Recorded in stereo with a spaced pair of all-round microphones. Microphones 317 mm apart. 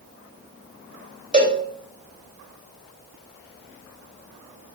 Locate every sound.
1.3 s a cowbell: 25° right (ahead or behind), 1.6 m